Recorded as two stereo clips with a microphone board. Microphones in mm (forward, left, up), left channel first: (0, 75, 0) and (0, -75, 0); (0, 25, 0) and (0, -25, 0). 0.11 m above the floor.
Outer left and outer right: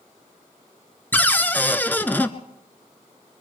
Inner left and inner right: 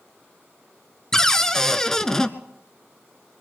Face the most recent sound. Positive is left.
turn(degrees=15)  # may be behind; listen again after turning